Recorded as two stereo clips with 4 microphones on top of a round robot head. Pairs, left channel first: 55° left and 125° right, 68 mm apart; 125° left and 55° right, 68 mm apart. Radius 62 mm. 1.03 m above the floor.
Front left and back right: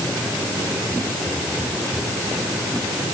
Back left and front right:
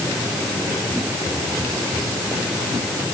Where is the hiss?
No hiss in this recording.